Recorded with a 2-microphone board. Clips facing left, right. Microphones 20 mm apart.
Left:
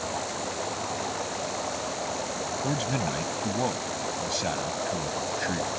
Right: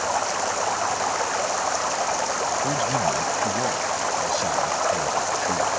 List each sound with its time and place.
0.0 s running water: 55° right (ahead or behind)
2.6 s a man speaking: centre (ahead or behind)